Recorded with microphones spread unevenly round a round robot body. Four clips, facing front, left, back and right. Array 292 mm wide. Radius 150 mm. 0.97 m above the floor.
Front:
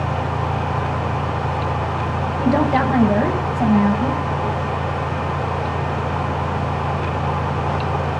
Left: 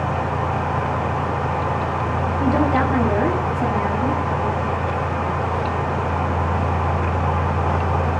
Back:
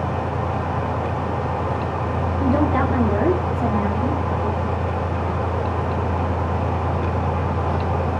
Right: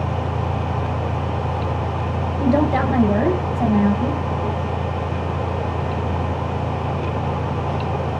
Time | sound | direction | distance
2.4 | a woman speaking | 30° right | 6 m